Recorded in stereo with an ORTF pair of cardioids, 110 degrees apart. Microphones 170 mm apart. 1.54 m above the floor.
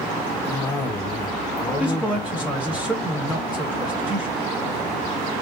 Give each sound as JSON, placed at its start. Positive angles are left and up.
{"t": 0.5, "sound": "a cough", "azimuth_deg": 15, "distance_m": 1.4}
{"t": 1.8, "sound": "a man speaking", "azimuth_deg": -5, "distance_m": 1.1}